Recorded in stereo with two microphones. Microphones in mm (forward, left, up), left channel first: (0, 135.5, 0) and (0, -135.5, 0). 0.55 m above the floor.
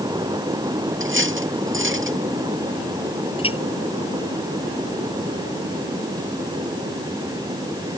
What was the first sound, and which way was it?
Cutlery clinking, 45° right (ahead or behind).